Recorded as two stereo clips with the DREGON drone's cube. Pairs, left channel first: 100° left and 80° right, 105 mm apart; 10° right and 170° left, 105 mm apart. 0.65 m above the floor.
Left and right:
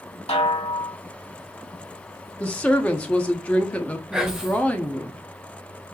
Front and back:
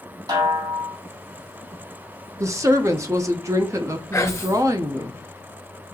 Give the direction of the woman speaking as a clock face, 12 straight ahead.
7 o'clock.